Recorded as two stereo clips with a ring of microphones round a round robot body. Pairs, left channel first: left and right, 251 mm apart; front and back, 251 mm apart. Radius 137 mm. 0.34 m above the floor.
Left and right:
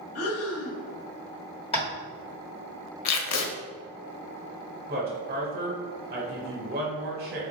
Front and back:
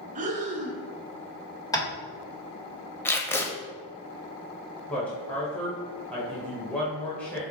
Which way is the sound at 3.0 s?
80° left.